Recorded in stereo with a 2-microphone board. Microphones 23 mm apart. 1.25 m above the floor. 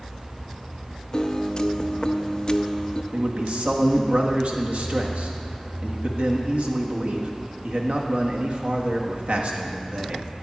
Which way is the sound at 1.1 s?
35° left (ahead or behind).